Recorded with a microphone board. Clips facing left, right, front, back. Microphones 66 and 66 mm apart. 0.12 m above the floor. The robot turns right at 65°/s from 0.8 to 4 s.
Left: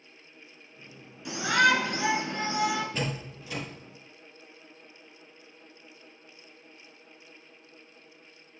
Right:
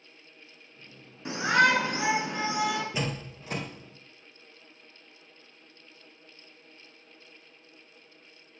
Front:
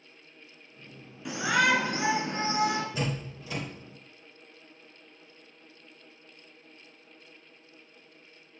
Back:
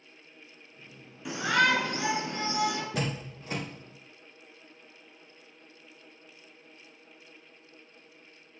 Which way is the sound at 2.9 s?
170° right.